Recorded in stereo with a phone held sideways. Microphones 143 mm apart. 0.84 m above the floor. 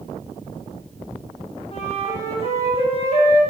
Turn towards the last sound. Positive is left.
turn(degrees=40)  # may be behind; listen again after turning